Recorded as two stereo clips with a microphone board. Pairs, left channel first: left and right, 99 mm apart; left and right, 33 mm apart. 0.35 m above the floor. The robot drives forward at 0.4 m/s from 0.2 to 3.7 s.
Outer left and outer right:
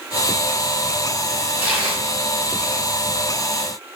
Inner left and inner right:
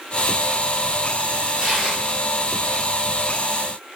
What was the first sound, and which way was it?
Tearing paper, 15° right (ahead or behind).